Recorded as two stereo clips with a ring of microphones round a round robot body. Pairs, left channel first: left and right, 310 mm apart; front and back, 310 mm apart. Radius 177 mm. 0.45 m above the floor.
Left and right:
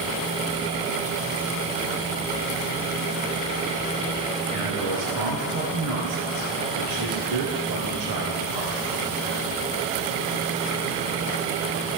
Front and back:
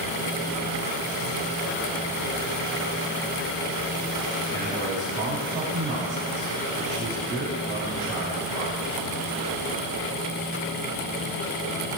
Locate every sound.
4.5 s a man speaking: 85° right, 4.5 m